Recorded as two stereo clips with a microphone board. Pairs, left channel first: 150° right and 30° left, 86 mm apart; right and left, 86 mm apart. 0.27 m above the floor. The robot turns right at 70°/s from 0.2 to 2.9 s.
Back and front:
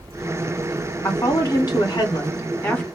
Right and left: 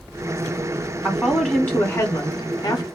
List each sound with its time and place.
1.0 s a woman speaking: 160° left, 1.8 m; by 2.9 s 70° right, 1.8 m